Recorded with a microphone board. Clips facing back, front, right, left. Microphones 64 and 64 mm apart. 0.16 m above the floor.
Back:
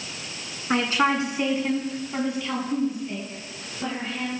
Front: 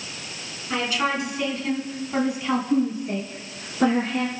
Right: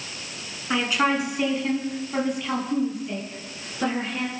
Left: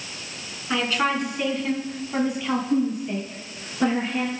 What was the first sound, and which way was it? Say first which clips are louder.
A woman speaking: back 3 dB, right 1 dB; 165° right.